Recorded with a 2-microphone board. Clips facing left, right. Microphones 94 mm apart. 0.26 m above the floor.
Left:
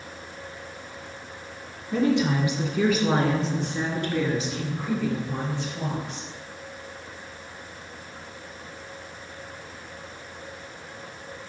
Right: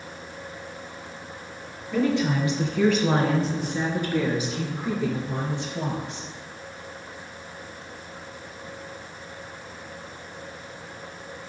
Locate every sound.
1.9 s a woman speaking: 25° left (ahead or behind), 1.9 m; by 6.3 s 25° right (ahead or behind), 4.5 m